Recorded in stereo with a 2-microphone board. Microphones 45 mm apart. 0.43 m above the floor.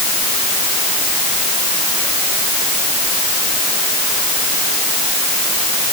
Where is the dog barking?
No dog barking in this recording.